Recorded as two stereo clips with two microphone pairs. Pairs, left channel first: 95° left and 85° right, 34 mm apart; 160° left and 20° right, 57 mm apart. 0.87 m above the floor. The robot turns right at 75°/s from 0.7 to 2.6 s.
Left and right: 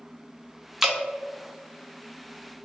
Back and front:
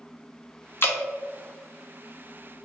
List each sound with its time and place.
0.8 s dripping: 165° right, 0.7 m; by 1.0 s 150° right, 0.7 m